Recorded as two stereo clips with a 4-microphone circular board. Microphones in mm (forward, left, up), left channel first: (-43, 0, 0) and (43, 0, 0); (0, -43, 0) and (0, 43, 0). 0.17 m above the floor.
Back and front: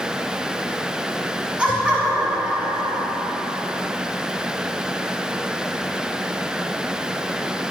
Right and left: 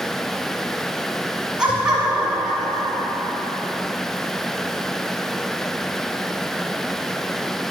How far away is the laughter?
About 1.7 m.